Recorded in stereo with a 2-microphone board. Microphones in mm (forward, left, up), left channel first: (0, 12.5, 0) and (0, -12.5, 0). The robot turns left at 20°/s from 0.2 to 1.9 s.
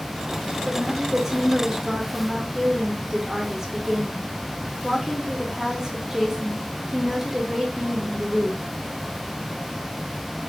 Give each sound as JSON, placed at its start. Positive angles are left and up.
{"t": 0.7, "sound": "a woman speaking", "side_deg": -20, "distance_m": 0.7}